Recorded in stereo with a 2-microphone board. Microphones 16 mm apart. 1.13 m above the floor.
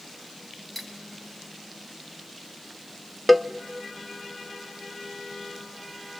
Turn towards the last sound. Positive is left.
turn(degrees=5)  # may be behind; listen again after turning